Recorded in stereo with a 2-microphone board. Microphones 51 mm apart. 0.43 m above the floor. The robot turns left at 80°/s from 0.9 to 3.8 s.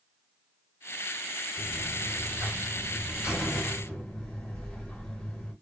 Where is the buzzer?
20° right, 1.8 m; by 5.5 s 160° left, 1.8 m.